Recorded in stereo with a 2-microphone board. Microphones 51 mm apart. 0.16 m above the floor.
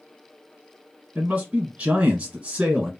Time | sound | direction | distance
1.1 | a man speaking | 20° right (ahead or behind) | 1.1 m